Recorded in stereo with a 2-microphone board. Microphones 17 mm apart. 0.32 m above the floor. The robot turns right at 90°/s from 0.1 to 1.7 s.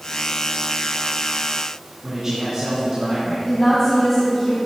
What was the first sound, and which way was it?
A man speaking, 30° right (ahead or behind).